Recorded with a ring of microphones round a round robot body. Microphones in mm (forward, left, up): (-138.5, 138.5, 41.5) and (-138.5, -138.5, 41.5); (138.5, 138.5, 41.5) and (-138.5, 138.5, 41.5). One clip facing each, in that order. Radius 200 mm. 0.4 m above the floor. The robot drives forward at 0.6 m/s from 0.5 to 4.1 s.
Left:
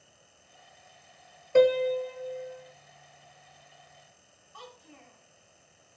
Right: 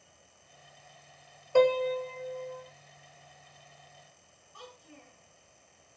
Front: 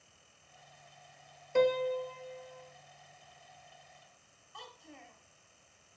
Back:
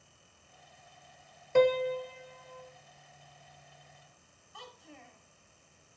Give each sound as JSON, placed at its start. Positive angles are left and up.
{"t": 1.6, "sound": "a piano", "azimuth_deg": 165, "distance_m": 0.5}
{"t": 4.5, "sound": "a child speaking", "azimuth_deg": 90, "distance_m": 2.5}